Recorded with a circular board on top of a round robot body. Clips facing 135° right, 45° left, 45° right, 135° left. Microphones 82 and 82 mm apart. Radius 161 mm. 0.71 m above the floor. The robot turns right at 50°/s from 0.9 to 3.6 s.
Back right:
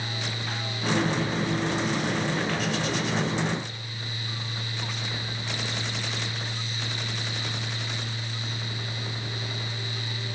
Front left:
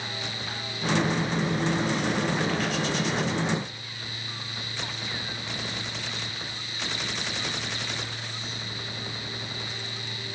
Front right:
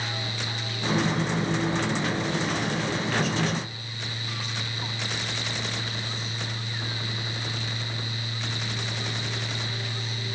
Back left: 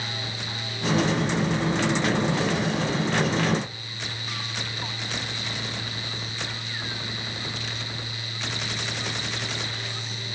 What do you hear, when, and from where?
Only background noise.